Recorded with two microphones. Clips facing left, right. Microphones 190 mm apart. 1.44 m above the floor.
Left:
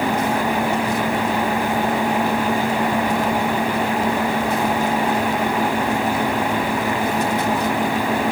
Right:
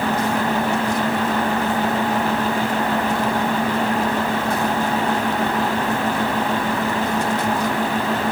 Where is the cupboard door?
No cupboard door in this recording.